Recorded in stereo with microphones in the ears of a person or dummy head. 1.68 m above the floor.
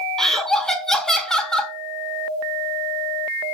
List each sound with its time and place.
0.2 s laughter: 5° left (ahead or behind), 0.6 m